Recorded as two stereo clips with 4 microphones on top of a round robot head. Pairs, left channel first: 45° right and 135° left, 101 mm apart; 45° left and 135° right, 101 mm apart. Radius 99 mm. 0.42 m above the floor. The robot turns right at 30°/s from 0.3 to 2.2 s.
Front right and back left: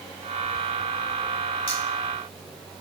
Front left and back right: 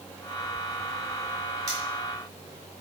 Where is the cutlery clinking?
75° right, 3 m; by 1.8 s 70° right, 3 m.